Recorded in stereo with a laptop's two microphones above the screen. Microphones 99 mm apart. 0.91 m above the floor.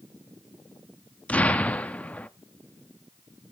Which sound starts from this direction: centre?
An explosion, at 1.3 s.